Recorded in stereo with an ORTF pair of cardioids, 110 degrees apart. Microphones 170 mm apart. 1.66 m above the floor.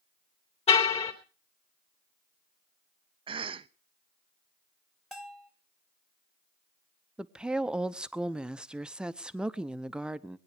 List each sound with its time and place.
0.7 s a car horn: 40° left, 3 m
3.3 s a cough: 30° right, 0.6 m
5.1 s a bell: straight ahead, 1.5 m
7.2 s a woman speaking: 5° right, 0.8 m